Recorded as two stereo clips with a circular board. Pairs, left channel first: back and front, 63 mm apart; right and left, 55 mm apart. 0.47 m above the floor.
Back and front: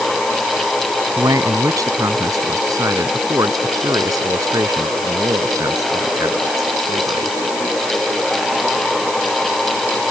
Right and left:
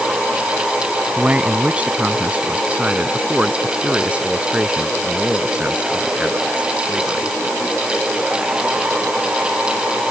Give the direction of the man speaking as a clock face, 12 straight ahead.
11 o'clock.